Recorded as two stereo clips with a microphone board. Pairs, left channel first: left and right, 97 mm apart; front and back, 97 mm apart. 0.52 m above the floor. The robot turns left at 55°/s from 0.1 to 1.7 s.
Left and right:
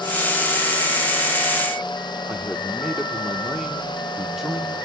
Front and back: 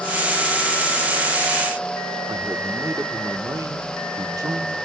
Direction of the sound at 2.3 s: 175° right.